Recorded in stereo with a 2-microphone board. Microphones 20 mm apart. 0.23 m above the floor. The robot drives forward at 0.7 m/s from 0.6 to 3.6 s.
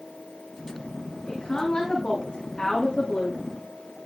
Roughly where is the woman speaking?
Left.